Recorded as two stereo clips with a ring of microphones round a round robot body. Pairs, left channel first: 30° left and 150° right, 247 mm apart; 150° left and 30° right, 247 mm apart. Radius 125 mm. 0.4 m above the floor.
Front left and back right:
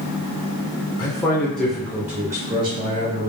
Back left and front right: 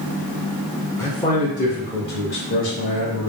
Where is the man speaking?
80° left, 1.1 m; by 3.3 s 150° left, 1.7 m.